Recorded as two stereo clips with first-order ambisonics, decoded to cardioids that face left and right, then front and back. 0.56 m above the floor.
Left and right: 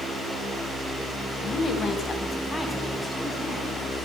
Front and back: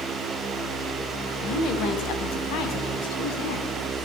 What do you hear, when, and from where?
1.4 s a woman speaking: 35° left, 3.5 m; by 3.7 s straight ahead, 5.5 m